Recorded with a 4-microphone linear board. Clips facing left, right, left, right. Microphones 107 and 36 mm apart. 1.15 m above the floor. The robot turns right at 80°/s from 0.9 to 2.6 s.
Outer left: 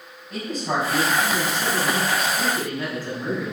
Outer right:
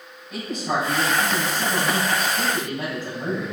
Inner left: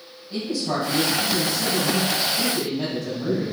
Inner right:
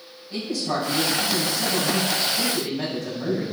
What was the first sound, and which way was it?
A man speaking, 175° left.